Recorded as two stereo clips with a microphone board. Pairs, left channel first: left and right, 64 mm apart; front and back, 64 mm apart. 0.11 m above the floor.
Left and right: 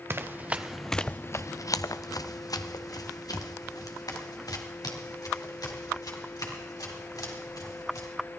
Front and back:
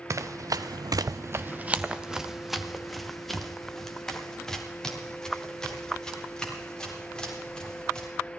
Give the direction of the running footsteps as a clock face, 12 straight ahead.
5 o'clock.